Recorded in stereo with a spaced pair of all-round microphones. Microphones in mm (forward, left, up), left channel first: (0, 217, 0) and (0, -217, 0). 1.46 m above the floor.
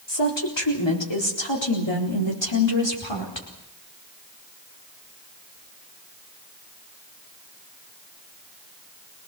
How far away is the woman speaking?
About 4 m.